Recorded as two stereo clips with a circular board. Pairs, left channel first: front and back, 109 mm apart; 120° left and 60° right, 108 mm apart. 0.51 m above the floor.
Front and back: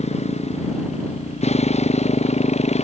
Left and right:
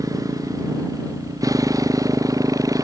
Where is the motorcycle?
Straight ahead.